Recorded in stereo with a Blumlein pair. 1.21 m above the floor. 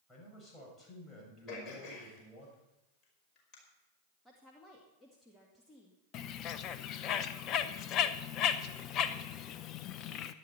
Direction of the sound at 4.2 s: 10° left.